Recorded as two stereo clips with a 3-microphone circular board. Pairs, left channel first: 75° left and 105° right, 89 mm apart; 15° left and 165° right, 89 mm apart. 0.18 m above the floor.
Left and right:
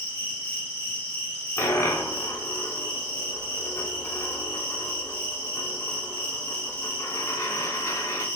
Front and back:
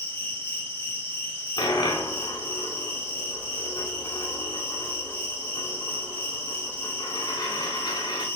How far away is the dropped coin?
About 0.5 m.